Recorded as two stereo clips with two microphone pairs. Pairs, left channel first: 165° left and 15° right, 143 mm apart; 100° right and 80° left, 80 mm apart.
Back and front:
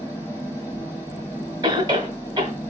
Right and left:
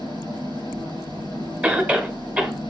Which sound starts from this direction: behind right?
An engine running, at 0.0 s.